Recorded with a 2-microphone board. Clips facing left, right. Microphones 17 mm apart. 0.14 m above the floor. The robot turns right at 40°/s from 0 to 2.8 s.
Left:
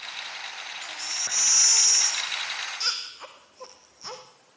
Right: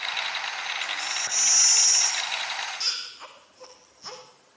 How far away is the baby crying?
About 4 m.